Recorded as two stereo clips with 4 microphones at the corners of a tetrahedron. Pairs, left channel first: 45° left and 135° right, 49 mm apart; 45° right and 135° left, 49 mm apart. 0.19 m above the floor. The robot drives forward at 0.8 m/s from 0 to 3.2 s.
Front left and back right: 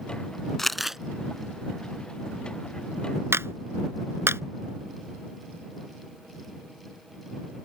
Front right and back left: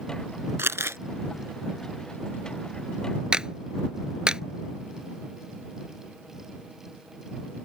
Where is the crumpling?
125° left; by 1.0 s 145° left.